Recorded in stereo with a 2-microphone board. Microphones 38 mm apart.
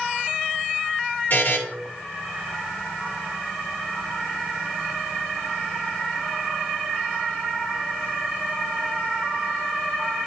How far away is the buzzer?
About 2.5 m.